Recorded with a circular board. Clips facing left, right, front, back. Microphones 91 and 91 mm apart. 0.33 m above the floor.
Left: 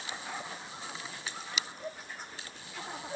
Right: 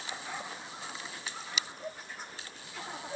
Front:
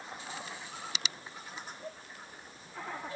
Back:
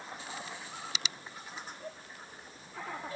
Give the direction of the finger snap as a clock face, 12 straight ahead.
I don't hear a finger snap.